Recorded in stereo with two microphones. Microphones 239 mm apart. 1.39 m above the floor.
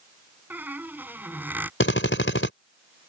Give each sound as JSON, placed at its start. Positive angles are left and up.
{"t": 0.5, "sound": "a squeak", "side_deg": -5}
{"t": 1.8, "sound": "a drill", "side_deg": 55}